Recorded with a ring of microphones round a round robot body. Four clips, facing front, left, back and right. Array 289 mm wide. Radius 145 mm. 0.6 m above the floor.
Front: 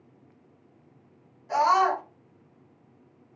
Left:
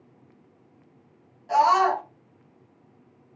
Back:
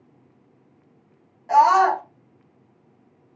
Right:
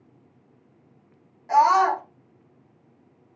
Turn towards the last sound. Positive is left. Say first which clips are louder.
# right 2 dB, back 6 dB
turn(degrees=-170)